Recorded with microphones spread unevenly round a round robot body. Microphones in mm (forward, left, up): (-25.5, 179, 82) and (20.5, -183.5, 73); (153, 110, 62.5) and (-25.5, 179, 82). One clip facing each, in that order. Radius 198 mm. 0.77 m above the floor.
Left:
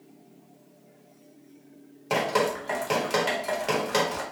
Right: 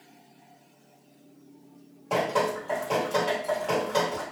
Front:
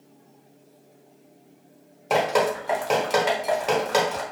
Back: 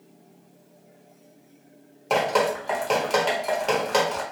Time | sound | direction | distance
2.1 | dripping | 60° left | 1.1 m